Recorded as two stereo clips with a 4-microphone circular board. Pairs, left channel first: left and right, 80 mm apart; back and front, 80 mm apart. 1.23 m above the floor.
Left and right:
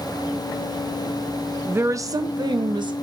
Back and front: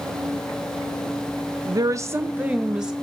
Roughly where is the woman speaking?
Ahead right.